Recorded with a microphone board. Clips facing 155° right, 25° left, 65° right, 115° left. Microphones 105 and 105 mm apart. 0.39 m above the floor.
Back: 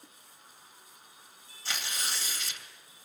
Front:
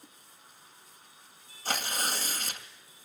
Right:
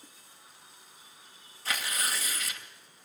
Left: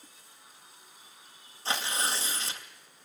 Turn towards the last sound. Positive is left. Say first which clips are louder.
# front 5 dB, left 2 dB
turn(degrees=55)